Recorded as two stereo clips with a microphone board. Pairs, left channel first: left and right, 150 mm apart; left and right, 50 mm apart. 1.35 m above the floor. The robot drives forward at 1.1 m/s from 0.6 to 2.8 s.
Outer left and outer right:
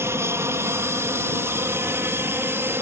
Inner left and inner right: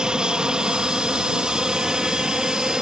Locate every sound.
0.0 s an aircraft: 15° right (ahead or behind)